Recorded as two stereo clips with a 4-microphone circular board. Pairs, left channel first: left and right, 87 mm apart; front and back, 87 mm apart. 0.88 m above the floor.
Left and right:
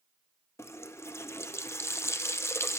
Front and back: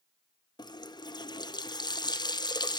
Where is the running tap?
30° left, 0.6 m.